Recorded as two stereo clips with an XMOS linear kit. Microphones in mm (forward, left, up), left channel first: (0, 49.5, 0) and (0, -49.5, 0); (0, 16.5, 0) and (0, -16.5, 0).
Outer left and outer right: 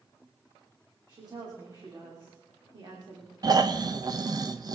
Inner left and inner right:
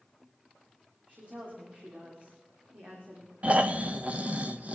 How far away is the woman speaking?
About 3 m.